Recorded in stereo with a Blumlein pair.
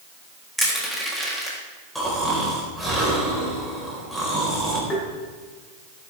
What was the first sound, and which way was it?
Crushing, straight ahead.